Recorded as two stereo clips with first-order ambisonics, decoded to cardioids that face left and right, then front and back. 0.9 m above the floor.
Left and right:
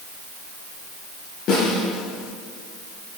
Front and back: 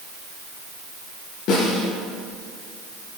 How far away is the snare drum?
About 7 m.